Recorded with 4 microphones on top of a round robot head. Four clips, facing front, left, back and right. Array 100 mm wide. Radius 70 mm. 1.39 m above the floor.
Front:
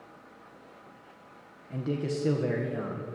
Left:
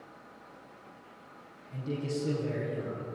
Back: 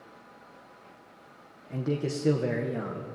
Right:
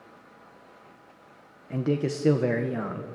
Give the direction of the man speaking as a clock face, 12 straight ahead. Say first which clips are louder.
Right 8 dB, back 1 dB; 3 o'clock.